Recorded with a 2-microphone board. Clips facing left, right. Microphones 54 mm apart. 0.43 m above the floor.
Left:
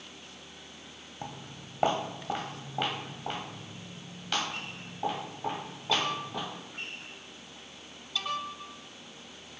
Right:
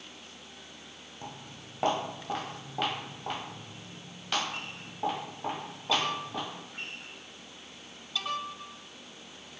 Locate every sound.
1.2 s footsteps: 25° left (ahead or behind), 0.9 m; by 6.5 s 15° right (ahead or behind), 3.5 m